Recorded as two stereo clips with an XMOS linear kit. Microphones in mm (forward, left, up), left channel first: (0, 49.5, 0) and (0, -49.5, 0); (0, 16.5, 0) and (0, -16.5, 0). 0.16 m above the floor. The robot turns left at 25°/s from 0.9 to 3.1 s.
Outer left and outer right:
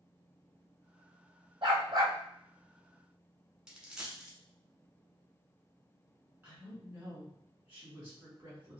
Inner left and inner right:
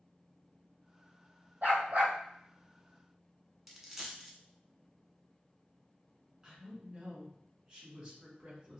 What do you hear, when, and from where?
1.6 s a dog barking: 65° right (ahead or behind), 1.9 m; by 2.2 s 50° right (ahead or behind), 1.9 m
3.7 s a dropped coin: 5° right (ahead or behind), 0.7 m
6.4 s a woman speaking: 20° right (ahead or behind), 1.6 m